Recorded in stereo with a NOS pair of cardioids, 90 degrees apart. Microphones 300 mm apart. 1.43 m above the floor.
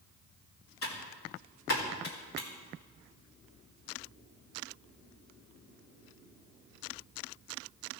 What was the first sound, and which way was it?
Typing on a keyboard, 60° left.